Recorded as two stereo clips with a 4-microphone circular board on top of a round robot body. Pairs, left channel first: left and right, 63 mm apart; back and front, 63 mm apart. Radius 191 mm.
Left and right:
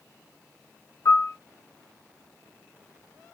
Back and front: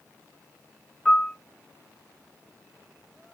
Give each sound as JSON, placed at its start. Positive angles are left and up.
{"t": 1.1, "sound": "a piano", "azimuth_deg": 105, "distance_m": 0.8}